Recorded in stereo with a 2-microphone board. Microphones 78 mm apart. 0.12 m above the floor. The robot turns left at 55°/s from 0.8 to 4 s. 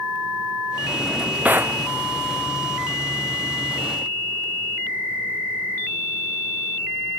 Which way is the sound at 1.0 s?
5° left.